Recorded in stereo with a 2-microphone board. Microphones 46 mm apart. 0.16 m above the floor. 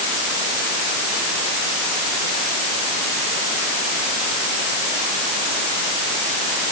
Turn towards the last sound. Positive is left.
No sound to turn to.